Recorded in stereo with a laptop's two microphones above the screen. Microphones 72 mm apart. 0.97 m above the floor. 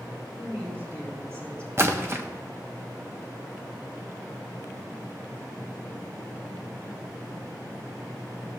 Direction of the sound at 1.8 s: 35° right (ahead or behind).